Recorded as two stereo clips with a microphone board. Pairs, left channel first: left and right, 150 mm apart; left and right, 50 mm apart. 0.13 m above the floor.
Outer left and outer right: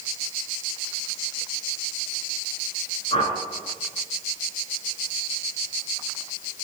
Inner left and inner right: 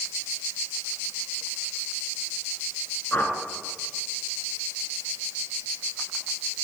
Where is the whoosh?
40° left (ahead or behind), 1.0 m.